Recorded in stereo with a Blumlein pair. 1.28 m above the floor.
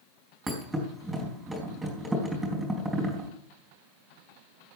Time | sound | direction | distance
0.5 | a thud | 10° right | 4 m